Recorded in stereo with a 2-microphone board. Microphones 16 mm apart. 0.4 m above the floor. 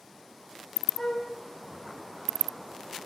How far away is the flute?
About 3.5 m.